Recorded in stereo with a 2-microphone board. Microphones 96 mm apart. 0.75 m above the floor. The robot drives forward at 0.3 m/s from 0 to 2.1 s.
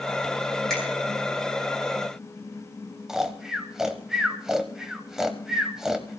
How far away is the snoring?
About 1.2 m.